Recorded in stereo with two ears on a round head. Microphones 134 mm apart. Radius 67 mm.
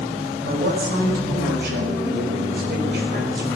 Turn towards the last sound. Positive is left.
turn(degrees=-70)  # may be behind; listen again after turning